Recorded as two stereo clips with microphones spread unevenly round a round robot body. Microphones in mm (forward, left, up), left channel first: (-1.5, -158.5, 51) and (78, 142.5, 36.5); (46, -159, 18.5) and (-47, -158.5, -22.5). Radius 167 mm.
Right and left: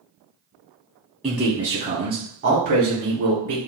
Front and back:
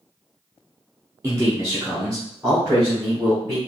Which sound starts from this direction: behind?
A man speaking, at 1.2 s.